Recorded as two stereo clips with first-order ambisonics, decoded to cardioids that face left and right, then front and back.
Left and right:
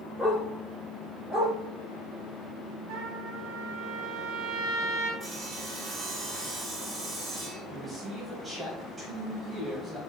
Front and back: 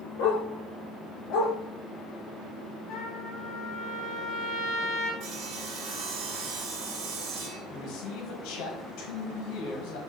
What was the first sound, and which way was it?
A dog barking, 5° right.